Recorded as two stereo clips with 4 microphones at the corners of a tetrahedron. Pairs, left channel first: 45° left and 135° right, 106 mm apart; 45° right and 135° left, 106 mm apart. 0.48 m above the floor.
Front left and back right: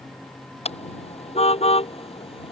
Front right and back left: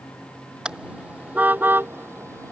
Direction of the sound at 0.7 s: 55° left.